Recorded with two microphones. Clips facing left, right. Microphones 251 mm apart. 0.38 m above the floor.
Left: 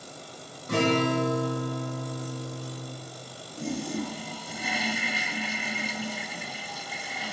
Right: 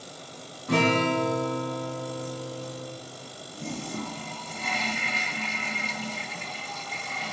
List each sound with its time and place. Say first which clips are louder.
0.7 s a guitar: even; 85° right, 7 m
3.6 s a toilet flushing: left 4 dB; 10° left (ahead or behind), 0.7 m